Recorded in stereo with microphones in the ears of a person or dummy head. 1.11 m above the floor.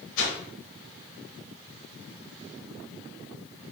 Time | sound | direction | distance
0.2 | a whoosh | 70° left (ahead or behind) | 1.0 m